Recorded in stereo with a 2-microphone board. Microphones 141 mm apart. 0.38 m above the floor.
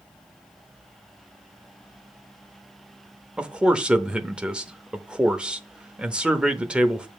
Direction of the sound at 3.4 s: 5° right (ahead or behind).